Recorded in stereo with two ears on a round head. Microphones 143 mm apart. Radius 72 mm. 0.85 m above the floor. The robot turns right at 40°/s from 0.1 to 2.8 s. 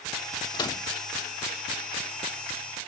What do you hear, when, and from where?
0.5 s a microwave: 30° left (ahead or behind); by 0.9 s 15° left (ahead or behind)